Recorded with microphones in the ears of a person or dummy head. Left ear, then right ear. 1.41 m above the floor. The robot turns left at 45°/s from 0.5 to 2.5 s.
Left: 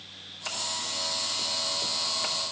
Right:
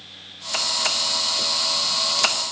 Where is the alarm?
I don't hear an alarm.